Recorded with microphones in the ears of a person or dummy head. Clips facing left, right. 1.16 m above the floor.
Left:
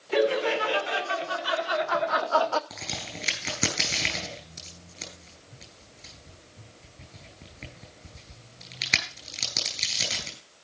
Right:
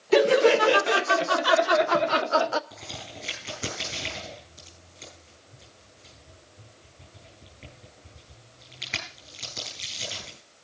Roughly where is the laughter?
Right.